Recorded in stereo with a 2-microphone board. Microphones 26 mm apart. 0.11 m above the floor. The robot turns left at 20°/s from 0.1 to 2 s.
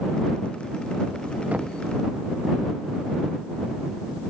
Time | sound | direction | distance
1.5 | knocking | 80° right | ?